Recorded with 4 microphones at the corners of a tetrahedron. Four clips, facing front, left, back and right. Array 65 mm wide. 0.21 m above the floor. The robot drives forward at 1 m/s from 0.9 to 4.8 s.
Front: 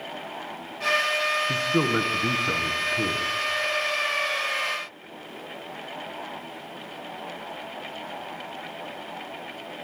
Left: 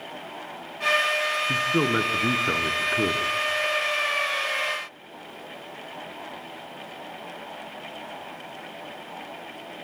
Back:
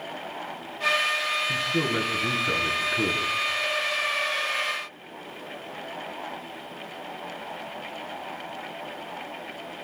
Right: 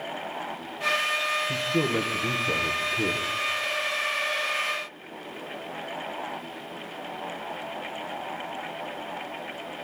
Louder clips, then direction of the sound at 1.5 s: Left 3 dB, front 2 dB; 50° left.